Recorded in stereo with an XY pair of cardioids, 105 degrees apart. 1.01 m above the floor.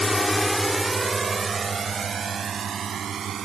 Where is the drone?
25° left; by 3.5 s 50° right.